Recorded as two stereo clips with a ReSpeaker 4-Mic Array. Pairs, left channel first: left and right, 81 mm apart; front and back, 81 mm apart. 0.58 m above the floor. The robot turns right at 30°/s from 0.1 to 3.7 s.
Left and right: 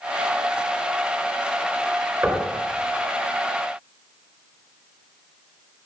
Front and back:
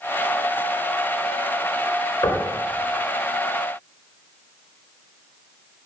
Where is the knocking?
25° right, 2.5 m; by 2.5 s 15° right, 2.5 m.